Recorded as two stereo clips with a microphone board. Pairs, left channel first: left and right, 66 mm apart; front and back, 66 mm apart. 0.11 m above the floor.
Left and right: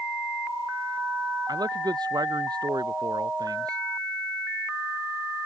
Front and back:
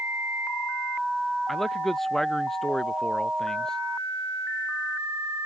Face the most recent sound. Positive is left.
turn(degrees=-80)